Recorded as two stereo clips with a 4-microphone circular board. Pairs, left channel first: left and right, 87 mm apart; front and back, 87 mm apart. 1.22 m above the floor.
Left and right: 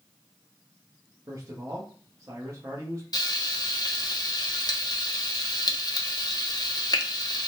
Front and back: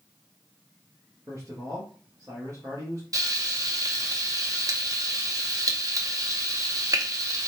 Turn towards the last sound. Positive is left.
turn(degrees=130)